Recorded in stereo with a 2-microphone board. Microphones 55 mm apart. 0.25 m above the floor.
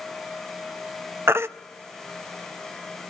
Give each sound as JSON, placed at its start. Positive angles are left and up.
{"t": 1.3, "sound": "a baby crying", "side_deg": -50, "distance_m": 0.5}